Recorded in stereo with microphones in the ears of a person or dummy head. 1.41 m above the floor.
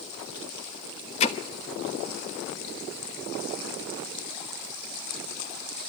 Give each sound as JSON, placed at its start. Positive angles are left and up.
{"t": 1.2, "sound": "hammering", "side_deg": 35, "distance_m": 3.0}